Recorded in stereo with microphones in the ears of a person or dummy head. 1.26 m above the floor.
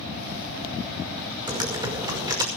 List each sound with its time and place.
1.5 s typing on a keyboard: 20° right (ahead or behind), 5.5 m